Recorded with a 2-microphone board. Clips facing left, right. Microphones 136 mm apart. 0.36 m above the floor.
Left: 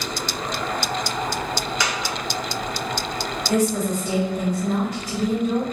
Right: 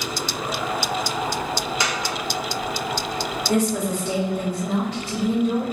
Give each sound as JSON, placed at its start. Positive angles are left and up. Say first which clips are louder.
{"t": 1.8, "sound": "a dropped coin", "louder": "even", "side_deg": -25, "distance_m": 1.2}
{"t": 3.5, "sound": "a woman speaking", "louder": "left 1 dB", "side_deg": -30, "distance_m": 1.3}